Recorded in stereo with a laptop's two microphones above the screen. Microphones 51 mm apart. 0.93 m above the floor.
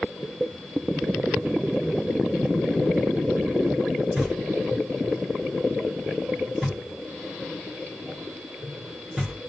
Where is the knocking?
5° right (ahead or behind), 1.1 m.